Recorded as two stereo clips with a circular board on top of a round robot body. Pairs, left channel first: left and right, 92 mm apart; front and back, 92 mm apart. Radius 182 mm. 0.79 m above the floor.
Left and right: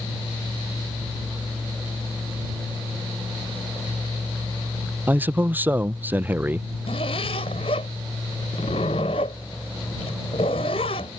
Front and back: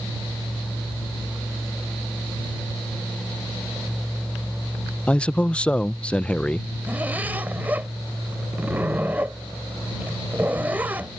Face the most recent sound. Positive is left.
turn(degrees=110)